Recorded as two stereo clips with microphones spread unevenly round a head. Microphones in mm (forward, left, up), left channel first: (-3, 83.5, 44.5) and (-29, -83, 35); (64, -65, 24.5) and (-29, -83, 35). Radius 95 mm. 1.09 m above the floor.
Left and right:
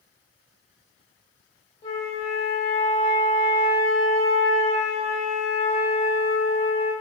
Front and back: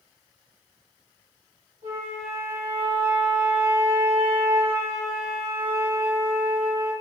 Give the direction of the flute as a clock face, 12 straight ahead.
7 o'clock.